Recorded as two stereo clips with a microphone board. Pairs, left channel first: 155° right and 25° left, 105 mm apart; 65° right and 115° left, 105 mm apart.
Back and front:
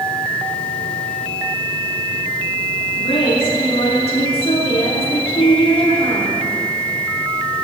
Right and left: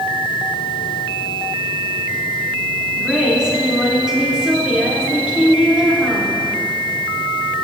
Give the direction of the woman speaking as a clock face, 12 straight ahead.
6 o'clock.